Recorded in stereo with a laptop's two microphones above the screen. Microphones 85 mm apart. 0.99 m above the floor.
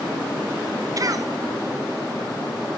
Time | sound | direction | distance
1.0 | a cough | 45° right (ahead or behind) | 1.0 m